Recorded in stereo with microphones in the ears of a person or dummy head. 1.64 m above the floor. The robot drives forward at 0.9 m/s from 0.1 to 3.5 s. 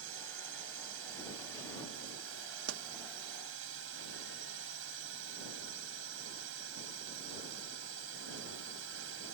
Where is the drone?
85° right.